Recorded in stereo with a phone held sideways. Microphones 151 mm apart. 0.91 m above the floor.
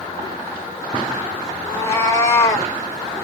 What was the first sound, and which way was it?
A cat meowing, 15° left (ahead or behind).